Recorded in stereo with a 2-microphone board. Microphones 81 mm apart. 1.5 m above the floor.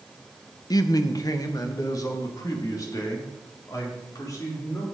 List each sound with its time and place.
0.7 s a man speaking: 50° left (ahead or behind), 0.6 m; by 4.8 s 45° left (ahead or behind), 4 m